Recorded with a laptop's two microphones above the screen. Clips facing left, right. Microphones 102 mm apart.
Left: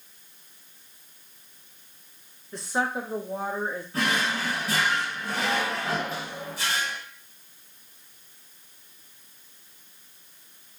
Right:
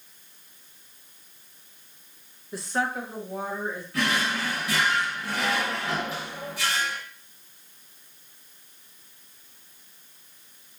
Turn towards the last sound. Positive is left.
turn(degrees=35)  # may be behind; listen again after turning